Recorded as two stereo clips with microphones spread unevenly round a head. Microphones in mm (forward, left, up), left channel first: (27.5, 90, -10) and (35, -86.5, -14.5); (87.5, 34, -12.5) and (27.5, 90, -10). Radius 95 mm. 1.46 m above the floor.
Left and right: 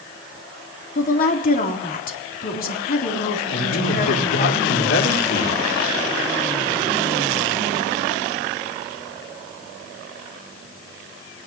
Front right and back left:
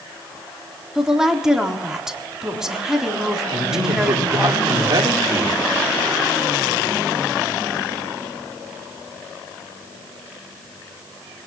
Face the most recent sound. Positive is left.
turn(degrees=100)